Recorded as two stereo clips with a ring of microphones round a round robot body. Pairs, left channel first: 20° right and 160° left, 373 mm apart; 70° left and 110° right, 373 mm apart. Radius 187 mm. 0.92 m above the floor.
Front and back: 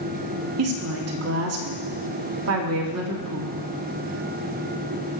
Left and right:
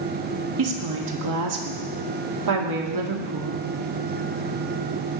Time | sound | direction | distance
0.6 | a woman speaking | 150° right | 2.5 m